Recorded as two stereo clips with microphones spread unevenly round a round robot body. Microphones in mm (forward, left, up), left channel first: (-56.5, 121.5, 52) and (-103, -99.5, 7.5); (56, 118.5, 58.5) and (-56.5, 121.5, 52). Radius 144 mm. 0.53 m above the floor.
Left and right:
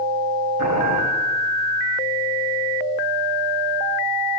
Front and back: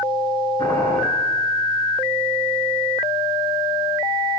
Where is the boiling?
75° right, 8.5 m.